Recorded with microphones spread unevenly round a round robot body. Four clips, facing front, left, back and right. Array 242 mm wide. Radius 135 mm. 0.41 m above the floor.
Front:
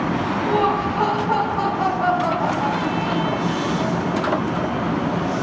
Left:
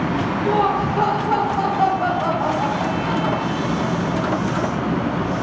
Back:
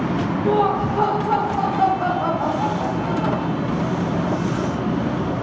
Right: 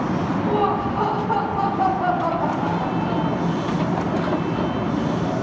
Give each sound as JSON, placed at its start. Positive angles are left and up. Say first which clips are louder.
{"t": 0.5, "sound": "laughter", "louder": "left 3 dB, back 1 dB", "azimuth_deg": 150, "distance_m": 2.5}